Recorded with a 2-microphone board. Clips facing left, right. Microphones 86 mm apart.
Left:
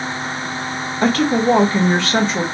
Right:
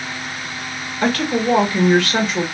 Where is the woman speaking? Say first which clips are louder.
Left 3 dB; 25° left (ahead or behind), 1.6 m.